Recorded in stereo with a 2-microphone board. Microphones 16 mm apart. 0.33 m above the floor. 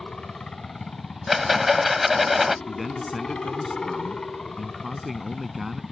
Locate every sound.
0.0 s a helicopter: 55° left (ahead or behind)
1.3 s a rattle: 10° right (ahead or behind)
2.7 s a man speaking: 5° right (ahead or behind)